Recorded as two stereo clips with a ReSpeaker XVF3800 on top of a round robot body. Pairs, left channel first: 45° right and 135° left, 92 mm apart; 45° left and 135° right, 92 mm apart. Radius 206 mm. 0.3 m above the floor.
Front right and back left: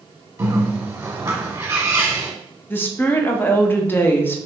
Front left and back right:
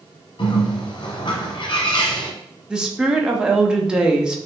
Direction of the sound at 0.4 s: 70° left.